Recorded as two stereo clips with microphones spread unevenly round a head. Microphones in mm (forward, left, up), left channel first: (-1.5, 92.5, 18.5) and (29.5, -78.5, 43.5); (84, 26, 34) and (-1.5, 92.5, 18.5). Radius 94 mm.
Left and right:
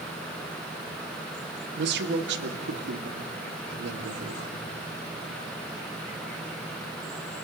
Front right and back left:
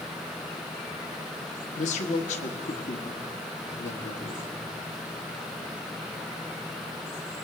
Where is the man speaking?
60° right, 1.5 m.